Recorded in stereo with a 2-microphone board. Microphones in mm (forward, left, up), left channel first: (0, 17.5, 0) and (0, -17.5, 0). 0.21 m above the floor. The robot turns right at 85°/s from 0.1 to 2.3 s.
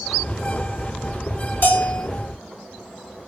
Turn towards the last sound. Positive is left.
turn(degrees=160)